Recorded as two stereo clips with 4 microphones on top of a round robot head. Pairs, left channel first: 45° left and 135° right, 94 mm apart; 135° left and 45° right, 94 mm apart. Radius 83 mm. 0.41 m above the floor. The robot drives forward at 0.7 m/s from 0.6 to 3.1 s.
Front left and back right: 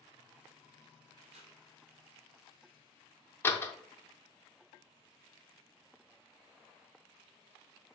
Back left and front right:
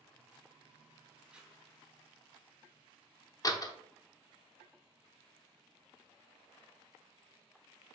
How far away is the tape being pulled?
About 0.7 m.